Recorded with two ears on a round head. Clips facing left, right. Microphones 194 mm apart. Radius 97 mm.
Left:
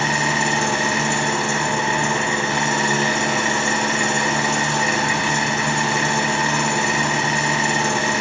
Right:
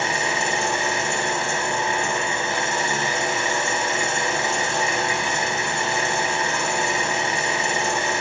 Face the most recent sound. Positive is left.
turn(degrees=55)  # may be behind; listen again after turning